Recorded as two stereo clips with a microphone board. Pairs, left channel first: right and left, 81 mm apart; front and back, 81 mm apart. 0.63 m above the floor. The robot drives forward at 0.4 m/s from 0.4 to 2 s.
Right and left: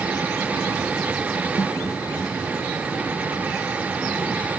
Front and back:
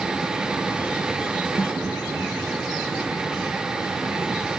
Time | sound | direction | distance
1.6 | a snare drum | 45° right | ?